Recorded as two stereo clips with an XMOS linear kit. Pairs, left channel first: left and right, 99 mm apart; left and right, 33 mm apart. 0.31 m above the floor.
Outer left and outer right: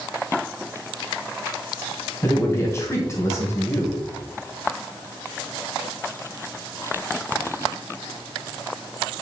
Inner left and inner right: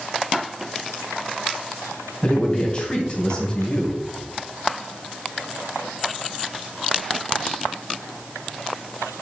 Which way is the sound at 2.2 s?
30° left (ahead or behind).